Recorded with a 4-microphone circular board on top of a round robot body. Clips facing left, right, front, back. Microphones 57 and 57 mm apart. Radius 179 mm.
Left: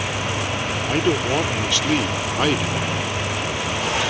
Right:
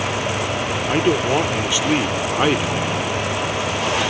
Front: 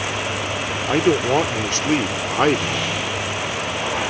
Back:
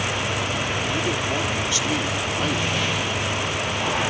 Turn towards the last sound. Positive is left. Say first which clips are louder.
# right 3 dB, front 7 dB
turn(degrees=-20)